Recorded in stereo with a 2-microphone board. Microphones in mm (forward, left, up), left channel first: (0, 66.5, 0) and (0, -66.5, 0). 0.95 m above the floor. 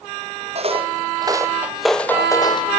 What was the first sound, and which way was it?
Footsteps, 50° right (ahead or behind).